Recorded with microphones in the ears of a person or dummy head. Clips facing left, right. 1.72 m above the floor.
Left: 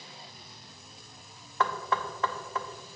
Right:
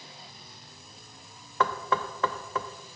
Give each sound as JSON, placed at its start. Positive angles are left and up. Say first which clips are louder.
{"t": 1.6, "sound": "knocking", "louder": "right 2 dB", "side_deg": -60, "distance_m": 0.7}